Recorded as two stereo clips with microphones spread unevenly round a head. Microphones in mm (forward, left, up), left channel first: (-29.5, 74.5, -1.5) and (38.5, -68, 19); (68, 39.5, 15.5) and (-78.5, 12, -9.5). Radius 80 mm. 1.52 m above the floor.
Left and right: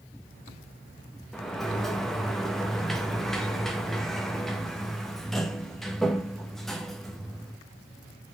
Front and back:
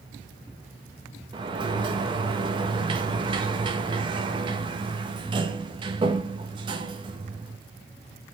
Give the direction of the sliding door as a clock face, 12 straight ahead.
5 o'clock.